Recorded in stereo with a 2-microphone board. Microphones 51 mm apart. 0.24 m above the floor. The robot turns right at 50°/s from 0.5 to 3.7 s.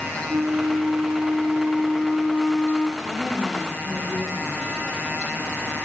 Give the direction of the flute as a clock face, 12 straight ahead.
3 o'clock.